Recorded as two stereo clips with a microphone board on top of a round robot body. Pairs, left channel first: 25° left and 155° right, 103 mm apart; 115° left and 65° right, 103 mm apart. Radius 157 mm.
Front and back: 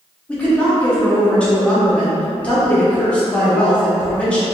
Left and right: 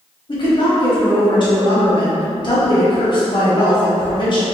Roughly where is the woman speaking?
Left.